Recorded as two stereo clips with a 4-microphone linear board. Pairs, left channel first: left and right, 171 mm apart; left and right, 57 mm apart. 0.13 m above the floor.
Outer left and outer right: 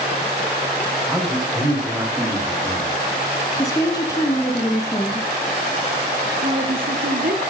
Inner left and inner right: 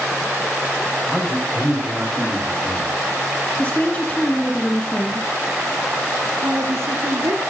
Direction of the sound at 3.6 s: 20° left (ahead or behind).